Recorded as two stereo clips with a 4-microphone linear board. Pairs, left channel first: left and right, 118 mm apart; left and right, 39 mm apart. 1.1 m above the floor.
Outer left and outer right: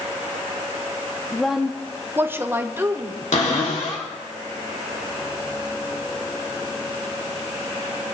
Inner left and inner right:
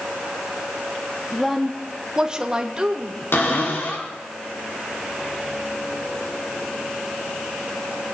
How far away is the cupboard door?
About 3 m.